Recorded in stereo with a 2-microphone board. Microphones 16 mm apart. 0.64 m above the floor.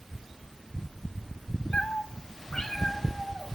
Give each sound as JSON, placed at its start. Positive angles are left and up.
{"t": 1.7, "sound": "a cat meowing", "side_deg": 70, "distance_m": 0.9}